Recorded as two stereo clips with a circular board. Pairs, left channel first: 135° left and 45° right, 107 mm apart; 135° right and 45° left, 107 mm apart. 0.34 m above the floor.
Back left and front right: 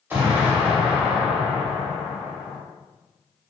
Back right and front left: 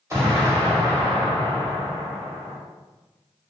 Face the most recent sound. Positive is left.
turn(degrees=10)